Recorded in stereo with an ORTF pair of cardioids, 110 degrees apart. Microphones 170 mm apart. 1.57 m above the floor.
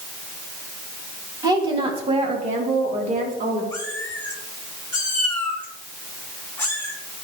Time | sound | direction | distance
1.4 | a woman speaking | 20° right | 2 m
3.7 | a cat meowing | 15° left | 3 m